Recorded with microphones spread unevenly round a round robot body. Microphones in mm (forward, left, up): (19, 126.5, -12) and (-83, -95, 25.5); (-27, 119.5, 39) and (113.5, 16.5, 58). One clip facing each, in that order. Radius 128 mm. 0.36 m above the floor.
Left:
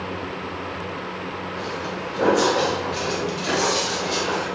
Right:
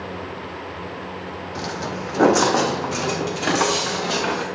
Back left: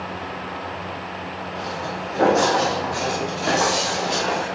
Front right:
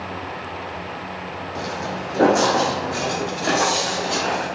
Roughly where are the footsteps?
Right.